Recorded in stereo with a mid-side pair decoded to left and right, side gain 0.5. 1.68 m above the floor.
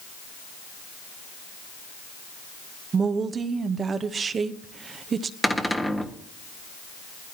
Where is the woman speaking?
40° right, 1.1 m.